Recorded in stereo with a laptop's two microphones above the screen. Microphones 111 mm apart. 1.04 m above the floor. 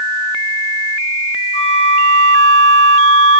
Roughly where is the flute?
Left.